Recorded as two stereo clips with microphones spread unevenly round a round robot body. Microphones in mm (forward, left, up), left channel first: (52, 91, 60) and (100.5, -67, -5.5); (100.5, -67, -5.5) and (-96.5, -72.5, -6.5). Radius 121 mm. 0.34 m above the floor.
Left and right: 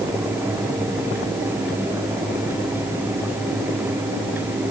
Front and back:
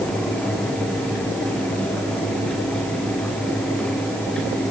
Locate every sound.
Only background noise.